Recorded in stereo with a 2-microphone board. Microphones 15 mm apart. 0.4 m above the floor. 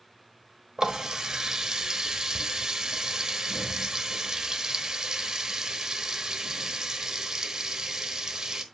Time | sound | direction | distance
0.8 | a running tap | 45° right (ahead or behind) | 1.1 m